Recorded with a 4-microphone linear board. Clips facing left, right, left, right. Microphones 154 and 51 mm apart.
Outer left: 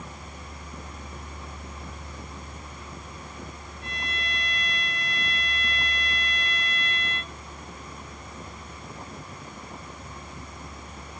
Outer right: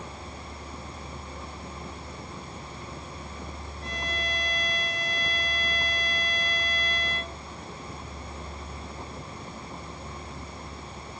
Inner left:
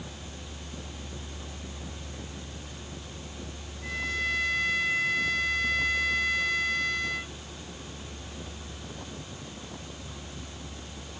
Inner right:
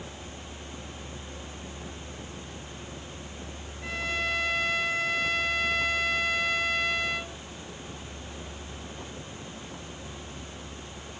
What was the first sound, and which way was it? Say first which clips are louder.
A violin: outer right 3 dB, even; 25° right (ahead or behind).